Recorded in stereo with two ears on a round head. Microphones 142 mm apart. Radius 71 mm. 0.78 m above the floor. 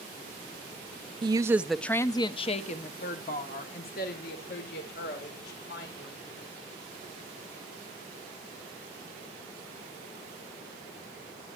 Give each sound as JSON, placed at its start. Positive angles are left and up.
{"t": 1.2, "sound": "a woman speaking", "side_deg": -30, "distance_m": 0.6}